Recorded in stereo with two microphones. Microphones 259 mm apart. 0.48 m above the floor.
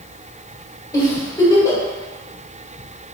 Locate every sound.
0.9 s a giggle: 10° left (ahead or behind), 1.2 m